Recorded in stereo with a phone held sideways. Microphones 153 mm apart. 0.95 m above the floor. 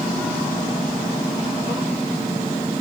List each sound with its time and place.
Only background noise.